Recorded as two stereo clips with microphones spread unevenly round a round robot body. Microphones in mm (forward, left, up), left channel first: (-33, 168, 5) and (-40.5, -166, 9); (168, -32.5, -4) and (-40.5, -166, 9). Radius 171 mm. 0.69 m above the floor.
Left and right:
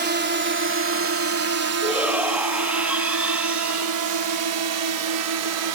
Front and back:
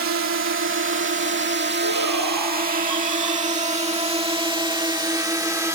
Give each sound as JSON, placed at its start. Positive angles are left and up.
{"t": 0.0, "sound": "a drone", "azimuth_deg": -145}
{"t": 1.8, "sound": "a shout", "azimuth_deg": -175}